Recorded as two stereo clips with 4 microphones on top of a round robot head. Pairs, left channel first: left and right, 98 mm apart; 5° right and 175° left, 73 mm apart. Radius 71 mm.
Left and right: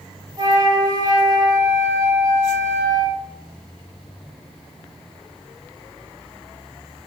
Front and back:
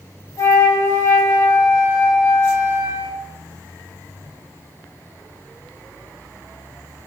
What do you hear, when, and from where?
0.4 s a flute: 45° right, 0.7 m